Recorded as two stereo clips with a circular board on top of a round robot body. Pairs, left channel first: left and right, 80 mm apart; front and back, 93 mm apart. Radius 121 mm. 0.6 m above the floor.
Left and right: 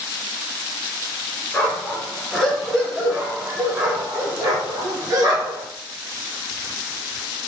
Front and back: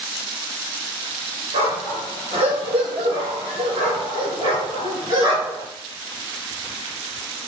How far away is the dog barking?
About 3 m.